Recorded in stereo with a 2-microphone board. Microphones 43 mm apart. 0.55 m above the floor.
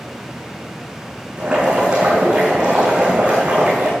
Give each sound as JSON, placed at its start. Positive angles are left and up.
{"t": 1.4, "sound": "boiling", "side_deg": -30, "distance_m": 7.0}